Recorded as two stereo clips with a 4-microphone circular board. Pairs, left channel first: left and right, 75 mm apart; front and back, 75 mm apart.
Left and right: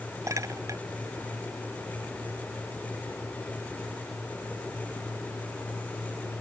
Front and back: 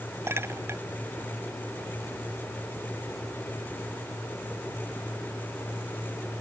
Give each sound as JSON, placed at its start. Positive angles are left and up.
{"t": 0.3, "sound": "a clink", "azimuth_deg": -130}